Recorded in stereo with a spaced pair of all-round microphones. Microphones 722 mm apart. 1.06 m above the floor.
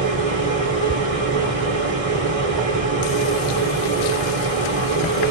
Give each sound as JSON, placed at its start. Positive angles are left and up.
{"t": 0.0, "sound": "a machine running", "side_deg": -50, "distance_m": 1.1}